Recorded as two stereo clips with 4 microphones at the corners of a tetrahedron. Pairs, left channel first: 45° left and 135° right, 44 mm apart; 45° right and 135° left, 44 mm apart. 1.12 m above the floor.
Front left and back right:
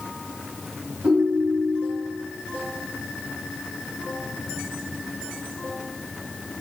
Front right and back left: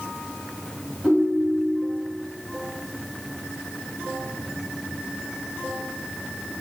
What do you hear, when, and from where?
1.0 s a ringtone: 155° right, 1.8 m